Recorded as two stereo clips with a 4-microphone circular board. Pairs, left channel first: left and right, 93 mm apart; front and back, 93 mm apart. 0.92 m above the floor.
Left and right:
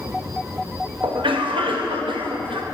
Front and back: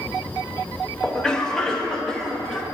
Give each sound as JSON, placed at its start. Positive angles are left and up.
{"t": 1.0, "sound": "a cough", "azimuth_deg": -80, "distance_m": 1.0}